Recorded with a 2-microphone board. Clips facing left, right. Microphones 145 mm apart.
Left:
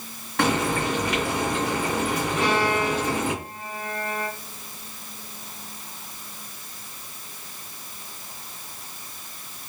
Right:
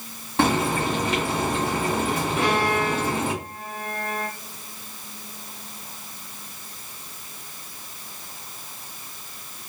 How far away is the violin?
About 2 m.